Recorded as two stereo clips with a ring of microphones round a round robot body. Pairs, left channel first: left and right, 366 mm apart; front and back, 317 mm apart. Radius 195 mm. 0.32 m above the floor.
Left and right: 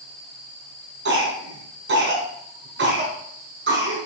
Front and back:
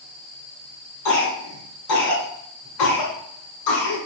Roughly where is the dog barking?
No dog barking in this recording.